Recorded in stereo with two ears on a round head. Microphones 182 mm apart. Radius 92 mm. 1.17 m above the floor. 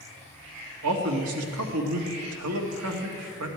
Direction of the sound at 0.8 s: 85° right.